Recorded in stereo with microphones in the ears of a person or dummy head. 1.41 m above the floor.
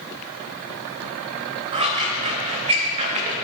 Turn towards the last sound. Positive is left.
turn(degrees=-35)  # may be behind; listen again after turning